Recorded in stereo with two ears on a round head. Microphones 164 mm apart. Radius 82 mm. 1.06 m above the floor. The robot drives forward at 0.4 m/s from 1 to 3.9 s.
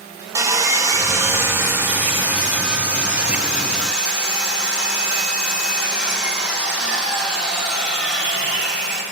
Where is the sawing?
15° right (ahead or behind), 0.7 m; by 9.0 s 5° right (ahead or behind), 1.9 m.